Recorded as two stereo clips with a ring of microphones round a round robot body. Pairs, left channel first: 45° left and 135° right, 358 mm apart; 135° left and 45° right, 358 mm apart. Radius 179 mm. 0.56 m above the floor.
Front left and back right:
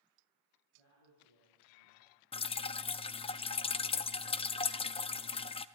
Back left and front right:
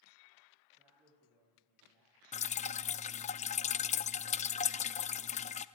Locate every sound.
0.8 s a man speaking: 40° left, 9 m
2.3 s dripping: 95° left, 0.6 m